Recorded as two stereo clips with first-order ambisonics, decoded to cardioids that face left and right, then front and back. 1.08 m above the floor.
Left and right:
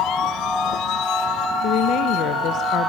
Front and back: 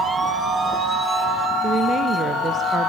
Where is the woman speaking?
120° left, 0.9 m.